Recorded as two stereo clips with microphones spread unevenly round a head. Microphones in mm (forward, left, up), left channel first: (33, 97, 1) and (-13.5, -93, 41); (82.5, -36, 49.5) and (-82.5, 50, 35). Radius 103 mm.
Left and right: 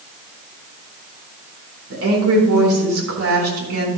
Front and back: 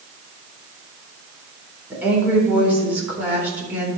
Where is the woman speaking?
125° right, 4 m.